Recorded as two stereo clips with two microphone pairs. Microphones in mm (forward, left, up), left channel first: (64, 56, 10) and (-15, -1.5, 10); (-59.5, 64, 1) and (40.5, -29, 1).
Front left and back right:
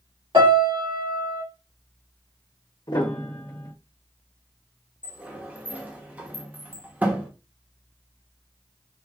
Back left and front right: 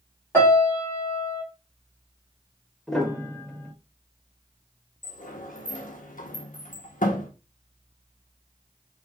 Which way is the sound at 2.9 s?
55° left.